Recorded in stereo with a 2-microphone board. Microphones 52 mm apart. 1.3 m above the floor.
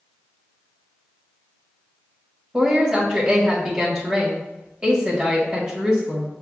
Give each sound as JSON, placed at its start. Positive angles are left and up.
{"t": 2.5, "sound": "a woman speaking", "side_deg": -10, "distance_m": 1.5}